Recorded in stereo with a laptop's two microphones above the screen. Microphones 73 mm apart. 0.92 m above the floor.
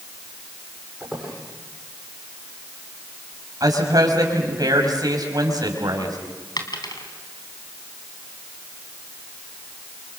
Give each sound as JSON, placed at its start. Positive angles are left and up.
{"t": 1.0, "sound": "a squeak", "side_deg": -10, "distance_m": 8.5}
{"t": 3.6, "sound": "a woman speaking", "side_deg": -60, "distance_m": 5.5}
{"t": 6.6, "sound": "a dropped coin", "side_deg": 70, "distance_m": 3.0}